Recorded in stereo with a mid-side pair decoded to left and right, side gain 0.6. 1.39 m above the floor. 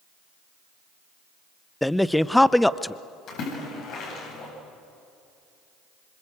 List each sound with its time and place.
1.8 s a man speaking: 5° left, 0.6 m
3.3 s a splash: 60° left, 9.5 m